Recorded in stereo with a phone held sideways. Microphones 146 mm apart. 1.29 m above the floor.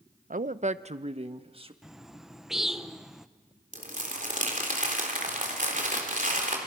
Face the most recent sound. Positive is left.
turn(degrees=-55)  # may be behind; listen again after turning